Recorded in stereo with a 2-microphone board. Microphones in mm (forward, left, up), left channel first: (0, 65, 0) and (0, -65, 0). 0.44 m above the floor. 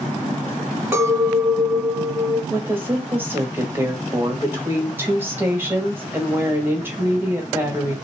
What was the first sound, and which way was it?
A clink, 20° right (ahead or behind).